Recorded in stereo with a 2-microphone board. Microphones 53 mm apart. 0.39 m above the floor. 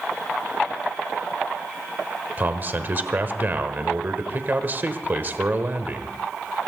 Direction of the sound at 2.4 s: 40° right (ahead or behind).